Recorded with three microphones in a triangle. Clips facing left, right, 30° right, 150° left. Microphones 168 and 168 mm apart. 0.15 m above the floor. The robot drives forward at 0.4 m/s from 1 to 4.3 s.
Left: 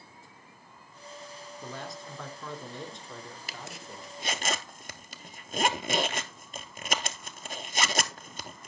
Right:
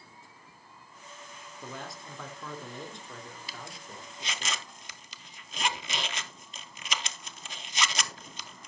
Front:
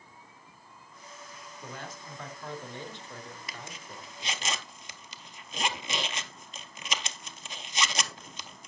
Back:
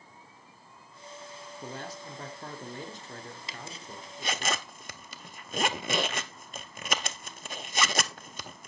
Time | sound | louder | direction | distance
1.6 | a man speaking | left 1 dB, back 3 dB | straight behind | 2 m
3.5 | a zipper | left 2 dB, back 1 dB | 90° left | 0.5 m